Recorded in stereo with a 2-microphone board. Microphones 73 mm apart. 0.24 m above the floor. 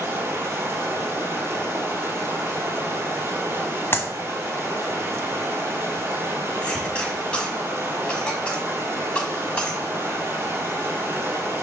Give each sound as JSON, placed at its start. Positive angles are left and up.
{"t": 0.0, "sound": "running water", "side_deg": -40, "distance_m": 2.0}
{"t": 3.9, "sound": "a clap", "side_deg": 35, "distance_m": 0.9}
{"t": 6.6, "sound": "a cough", "side_deg": 15, "distance_m": 1.9}